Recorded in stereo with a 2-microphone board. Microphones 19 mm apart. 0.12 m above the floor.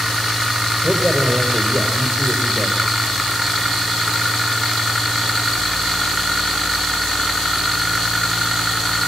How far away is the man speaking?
About 5 m.